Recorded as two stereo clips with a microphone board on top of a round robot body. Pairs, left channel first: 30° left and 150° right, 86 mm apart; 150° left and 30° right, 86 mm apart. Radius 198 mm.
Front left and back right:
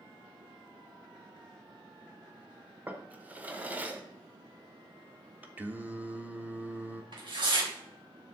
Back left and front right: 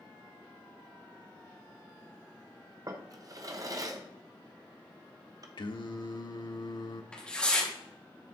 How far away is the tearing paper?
About 3 m.